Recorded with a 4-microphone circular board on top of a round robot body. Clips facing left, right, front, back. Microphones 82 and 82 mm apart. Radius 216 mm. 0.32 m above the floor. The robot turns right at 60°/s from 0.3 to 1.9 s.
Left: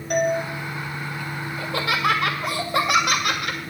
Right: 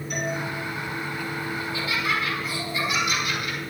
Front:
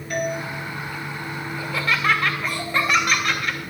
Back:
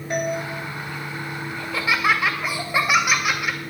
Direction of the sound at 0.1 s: 115° left.